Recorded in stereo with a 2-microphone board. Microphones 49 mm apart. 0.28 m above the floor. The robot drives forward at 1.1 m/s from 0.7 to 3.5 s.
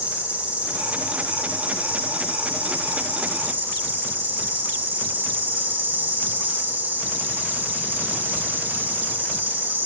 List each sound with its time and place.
0.0 s an insect: 25° right (ahead or behind), 8 m; by 9.9 s 40° right (ahead or behind), 5.5 m